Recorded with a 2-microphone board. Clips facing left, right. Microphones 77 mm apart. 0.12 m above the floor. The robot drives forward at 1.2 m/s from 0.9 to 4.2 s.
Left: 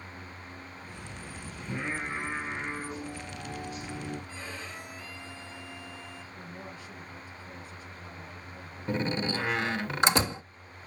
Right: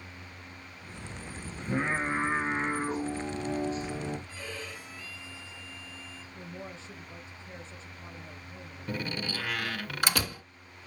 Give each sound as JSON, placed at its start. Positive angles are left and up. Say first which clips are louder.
{"t": 1.6, "sound": "singing", "louder": "right 5 dB", "side_deg": -45, "distance_m": 5.5}
{"t": 4.3, "sound": "a violin", "louder": "even", "side_deg": 20, "distance_m": 7.0}
{"t": 6.3, "sound": "a woman speaking", "louder": "right 4 dB", "side_deg": -25, "distance_m": 2.5}
{"t": 8.9, "sound": "a door slam", "louder": "left 5 dB", "side_deg": 25, "distance_m": 0.7}